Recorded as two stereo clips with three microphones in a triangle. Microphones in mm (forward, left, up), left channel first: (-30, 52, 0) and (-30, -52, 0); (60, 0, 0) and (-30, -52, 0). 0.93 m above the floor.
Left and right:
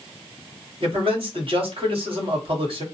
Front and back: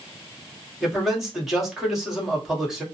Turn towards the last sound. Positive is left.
turn(degrees=-65)